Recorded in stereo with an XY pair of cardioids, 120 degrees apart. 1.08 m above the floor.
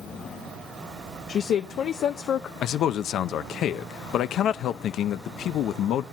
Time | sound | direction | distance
1.3 | a woman speaking | 55° left | 0.5 m
2.6 | a man speaking | 60° left | 0.6 m